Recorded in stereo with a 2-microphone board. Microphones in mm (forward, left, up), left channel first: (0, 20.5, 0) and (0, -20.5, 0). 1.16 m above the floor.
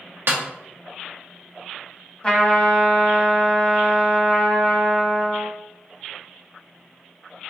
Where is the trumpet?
30° left (ahead or behind), 1.1 m.